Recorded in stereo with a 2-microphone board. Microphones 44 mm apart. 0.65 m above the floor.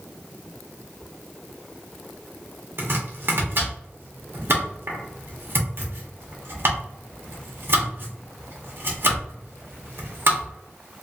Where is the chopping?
55° right (ahead or behind), 1.1 m.